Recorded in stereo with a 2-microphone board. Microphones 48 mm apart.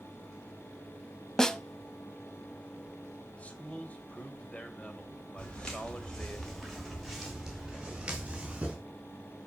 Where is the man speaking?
30° left (ahead or behind), 2 m.